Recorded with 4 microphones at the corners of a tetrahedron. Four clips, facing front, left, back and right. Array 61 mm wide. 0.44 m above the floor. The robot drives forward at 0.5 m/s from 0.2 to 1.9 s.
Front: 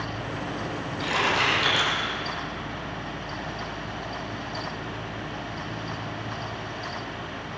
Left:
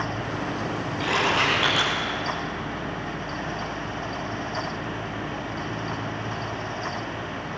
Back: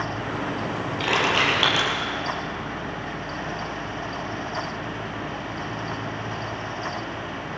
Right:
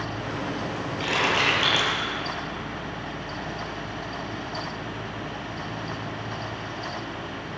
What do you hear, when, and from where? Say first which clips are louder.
1.0 s crushing: even, back 2 dB; 165° left, 9 m